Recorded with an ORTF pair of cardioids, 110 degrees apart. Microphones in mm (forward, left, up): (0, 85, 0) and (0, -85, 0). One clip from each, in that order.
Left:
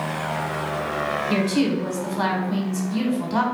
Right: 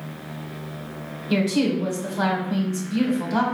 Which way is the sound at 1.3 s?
Straight ahead.